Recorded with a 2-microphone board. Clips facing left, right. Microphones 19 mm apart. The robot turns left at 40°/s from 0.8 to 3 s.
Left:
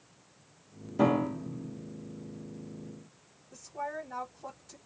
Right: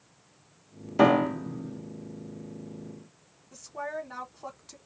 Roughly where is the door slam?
I don't hear a door slam.